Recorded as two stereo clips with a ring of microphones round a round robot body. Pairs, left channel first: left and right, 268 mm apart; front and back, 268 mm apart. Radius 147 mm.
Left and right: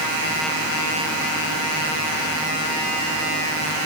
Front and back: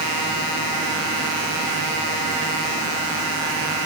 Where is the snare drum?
I don't hear a snare drum.